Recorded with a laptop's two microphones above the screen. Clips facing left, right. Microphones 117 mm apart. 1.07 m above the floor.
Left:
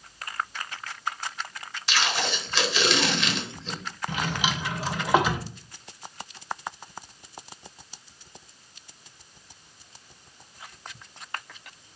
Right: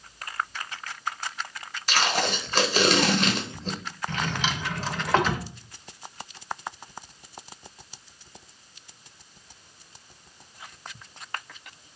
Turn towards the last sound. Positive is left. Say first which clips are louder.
# left 1 dB
turn(degrees=10)  # may be behind; listen again after turning